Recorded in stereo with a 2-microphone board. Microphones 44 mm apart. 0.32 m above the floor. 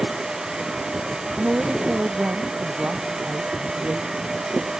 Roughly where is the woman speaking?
Right.